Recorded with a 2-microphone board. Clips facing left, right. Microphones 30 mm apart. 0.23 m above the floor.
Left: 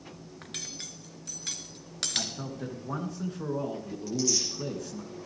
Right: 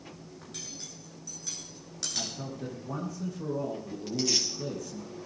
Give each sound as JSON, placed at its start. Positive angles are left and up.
{"t": 0.4, "sound": "cutlery clinking", "side_deg": 75, "distance_m": 1.7}
{"t": 2.2, "sound": "a man speaking", "side_deg": 60, "distance_m": 3.5}
{"t": 4.1, "sound": "tearing paper", "side_deg": -55, "distance_m": 3.5}